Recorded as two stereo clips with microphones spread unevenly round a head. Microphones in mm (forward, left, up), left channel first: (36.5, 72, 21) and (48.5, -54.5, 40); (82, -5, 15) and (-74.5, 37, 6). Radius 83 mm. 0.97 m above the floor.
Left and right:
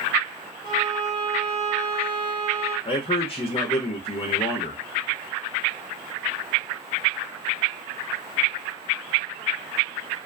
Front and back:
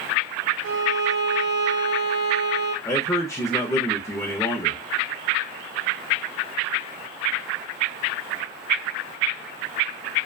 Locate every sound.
0.6 s a violin: 160° left, 0.6 m
2.9 s a man speaking: 60° left, 0.6 m